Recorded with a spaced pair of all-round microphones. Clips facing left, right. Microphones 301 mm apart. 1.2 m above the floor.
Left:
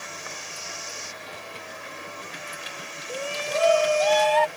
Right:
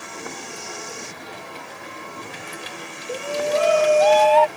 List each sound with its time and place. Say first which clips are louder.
0.0 s a vehicle: right 7 dB; 65° right (ahead or behind)
3.1 s a shout: right 7 dB; 80° right